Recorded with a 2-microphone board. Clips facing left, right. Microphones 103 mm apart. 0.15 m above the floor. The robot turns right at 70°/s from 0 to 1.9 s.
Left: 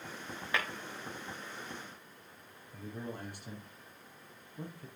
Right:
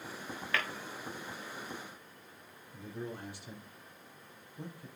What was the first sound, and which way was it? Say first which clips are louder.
Tapping: even; 15° left (ahead or behind).